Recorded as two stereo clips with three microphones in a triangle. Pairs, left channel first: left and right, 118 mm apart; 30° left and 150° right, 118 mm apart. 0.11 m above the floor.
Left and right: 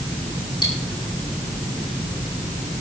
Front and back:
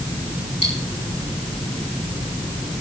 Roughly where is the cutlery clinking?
Ahead left.